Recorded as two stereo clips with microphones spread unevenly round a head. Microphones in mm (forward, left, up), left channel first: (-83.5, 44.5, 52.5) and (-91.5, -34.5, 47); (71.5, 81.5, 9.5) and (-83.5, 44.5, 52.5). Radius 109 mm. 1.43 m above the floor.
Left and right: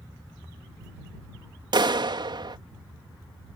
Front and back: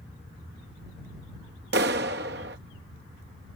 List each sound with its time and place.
1.7 s a clap: 125° right